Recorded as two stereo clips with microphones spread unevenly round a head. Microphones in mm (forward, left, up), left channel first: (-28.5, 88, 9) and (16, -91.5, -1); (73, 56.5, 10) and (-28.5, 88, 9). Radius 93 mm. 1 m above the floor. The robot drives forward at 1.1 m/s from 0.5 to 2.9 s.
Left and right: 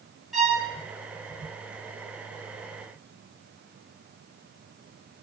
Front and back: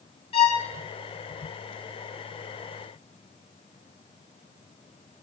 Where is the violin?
15° left, 1.1 m.